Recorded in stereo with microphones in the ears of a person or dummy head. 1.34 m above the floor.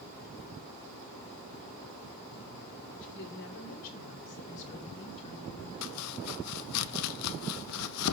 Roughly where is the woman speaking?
Left.